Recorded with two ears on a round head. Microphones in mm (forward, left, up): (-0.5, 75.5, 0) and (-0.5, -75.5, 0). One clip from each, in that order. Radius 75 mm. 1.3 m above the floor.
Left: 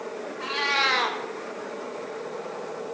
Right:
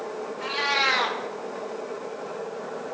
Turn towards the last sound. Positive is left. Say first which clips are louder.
# even
turn(degrees=5)  # may be behind; listen again after turning